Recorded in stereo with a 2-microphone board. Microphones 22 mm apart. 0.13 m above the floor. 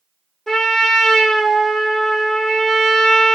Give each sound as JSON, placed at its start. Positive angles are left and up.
{"t": 0.5, "sound": "a trumpet", "side_deg": 25, "distance_m": 0.8}